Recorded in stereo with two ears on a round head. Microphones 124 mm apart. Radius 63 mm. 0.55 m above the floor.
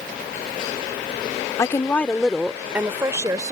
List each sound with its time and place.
1.6 s a woman speaking: 25° left (ahead or behind); by 3.5 s 25° right (ahead or behind)